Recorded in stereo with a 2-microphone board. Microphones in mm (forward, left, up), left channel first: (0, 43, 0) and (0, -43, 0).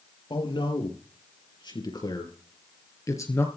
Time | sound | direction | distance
0.3 | a man speaking | 70° left (ahead or behind) | 5.5 m